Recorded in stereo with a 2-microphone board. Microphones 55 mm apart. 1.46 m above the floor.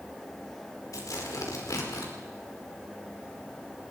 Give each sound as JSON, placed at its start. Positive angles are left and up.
{"t": 0.9, "sound": "tearing paper", "side_deg": 85, "distance_m": 5.0}